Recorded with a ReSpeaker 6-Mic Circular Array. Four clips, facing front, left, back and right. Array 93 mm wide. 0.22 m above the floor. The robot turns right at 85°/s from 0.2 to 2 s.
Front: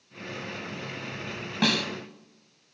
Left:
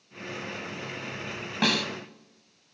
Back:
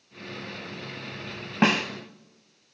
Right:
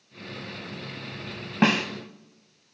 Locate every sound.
1.6 s a snare drum: 145° right, 1.0 m; by 1.9 s 125° right, 1.0 m